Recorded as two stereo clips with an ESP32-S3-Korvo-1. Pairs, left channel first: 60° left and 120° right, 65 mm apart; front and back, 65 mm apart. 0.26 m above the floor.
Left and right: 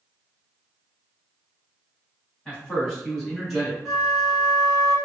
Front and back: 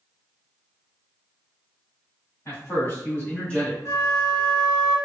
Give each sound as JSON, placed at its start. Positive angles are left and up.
{"t": 2.5, "sound": "a man speaking", "azimuth_deg": -10, "distance_m": 1.7}
{"t": 3.9, "sound": "a flute", "azimuth_deg": -30, "distance_m": 1.4}